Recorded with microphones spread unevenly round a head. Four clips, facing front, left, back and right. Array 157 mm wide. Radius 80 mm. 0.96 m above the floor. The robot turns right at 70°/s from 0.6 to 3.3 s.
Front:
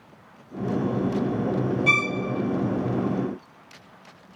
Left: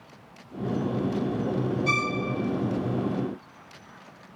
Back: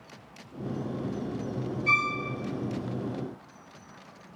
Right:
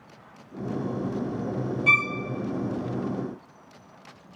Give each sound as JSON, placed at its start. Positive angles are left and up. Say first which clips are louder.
{"t": 1.9, "sound": "a violin", "louder": "right 1 dB, front 3 dB", "azimuth_deg": -55, "distance_m": 1.9}